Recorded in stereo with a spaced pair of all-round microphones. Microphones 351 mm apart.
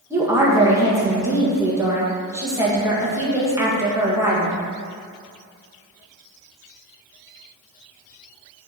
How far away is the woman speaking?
About 1.8 m.